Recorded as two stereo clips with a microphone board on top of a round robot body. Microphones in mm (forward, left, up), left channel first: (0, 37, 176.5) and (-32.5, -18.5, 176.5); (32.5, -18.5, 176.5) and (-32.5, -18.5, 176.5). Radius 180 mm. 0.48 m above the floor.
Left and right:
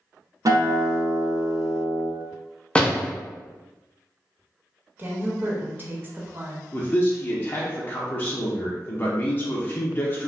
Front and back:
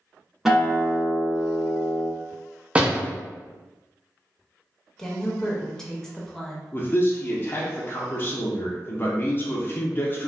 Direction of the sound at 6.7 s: 30° left.